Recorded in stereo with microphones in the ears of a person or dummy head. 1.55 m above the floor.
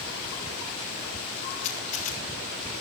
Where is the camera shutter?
40° left (ahead or behind), 6 m.